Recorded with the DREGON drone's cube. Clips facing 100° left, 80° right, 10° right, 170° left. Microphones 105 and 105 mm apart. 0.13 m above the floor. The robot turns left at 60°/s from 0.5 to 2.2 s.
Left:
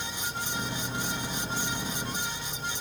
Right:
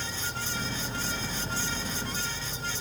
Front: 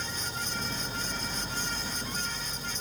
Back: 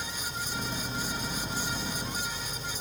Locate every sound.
0.0 s an insect: 30° right, 4 m; by 2.8 s 130° right, 4 m